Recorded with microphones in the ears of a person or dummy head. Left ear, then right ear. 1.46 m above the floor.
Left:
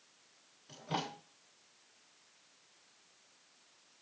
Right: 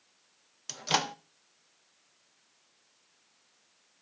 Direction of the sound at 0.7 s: 65° right (ahead or behind).